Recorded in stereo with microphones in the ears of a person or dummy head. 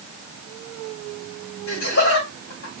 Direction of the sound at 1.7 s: 70° left (ahead or behind).